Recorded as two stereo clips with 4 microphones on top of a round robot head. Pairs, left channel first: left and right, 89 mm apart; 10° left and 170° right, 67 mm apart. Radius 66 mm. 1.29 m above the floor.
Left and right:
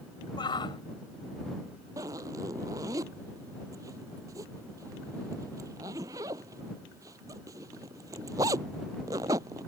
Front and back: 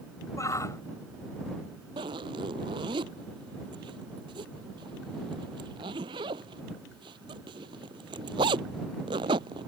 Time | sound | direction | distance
0.4 | a shout | 55° left | ?
2.0 | a zipper | 150° right | ?